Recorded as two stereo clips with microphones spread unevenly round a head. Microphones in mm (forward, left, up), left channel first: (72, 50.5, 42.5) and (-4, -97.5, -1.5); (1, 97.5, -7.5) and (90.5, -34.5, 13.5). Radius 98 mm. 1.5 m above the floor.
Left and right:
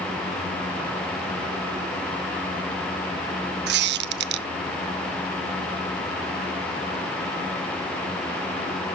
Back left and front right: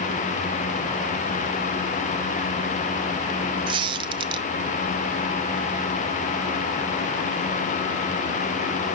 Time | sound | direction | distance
3.7 | a squeak | 100° right | 0.6 m